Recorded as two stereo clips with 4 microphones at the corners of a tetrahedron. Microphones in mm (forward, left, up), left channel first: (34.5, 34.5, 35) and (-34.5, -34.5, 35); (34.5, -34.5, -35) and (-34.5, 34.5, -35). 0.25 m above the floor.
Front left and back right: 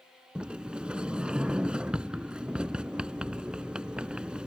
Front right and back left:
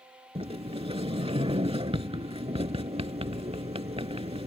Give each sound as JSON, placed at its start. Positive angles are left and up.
{"t": 0.3, "sound": "a sliding door", "azimuth_deg": 145}